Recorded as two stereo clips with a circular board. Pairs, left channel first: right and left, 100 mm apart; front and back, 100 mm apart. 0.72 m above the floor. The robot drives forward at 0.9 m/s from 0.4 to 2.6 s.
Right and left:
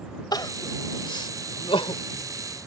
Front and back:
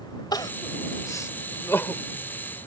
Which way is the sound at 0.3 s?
45° right.